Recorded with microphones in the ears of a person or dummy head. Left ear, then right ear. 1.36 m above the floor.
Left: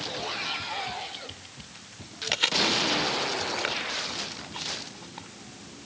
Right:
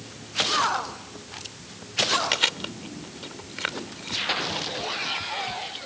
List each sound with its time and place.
2.3 s chewing: centre (ahead or behind)